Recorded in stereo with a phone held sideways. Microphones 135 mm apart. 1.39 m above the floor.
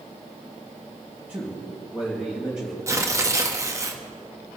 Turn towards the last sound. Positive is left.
turn(degrees=-20)  # may be behind; listen again after turning